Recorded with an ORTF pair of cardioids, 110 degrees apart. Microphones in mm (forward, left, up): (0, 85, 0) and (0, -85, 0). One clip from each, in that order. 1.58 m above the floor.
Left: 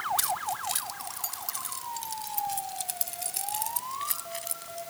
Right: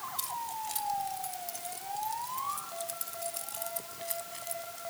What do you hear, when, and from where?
0.2 s keys jangling: 50° left; by 4.8 s 40° left